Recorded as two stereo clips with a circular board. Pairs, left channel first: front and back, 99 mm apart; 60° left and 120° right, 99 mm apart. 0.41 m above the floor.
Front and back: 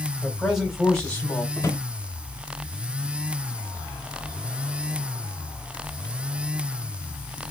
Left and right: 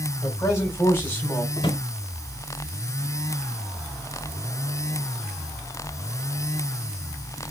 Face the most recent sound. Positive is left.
turn(degrees=55)